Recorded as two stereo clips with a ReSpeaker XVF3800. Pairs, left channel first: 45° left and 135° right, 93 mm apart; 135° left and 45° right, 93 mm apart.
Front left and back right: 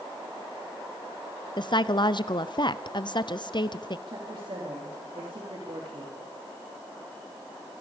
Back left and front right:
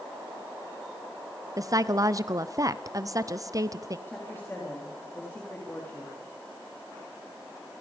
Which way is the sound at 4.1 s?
155° right.